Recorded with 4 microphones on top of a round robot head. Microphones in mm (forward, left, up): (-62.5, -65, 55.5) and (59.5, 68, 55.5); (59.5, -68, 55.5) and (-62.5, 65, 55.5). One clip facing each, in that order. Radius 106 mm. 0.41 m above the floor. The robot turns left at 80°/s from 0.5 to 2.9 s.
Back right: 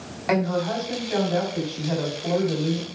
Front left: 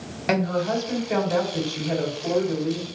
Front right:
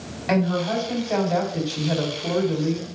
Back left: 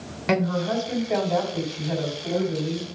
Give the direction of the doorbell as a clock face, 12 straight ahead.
No doorbell in this recording.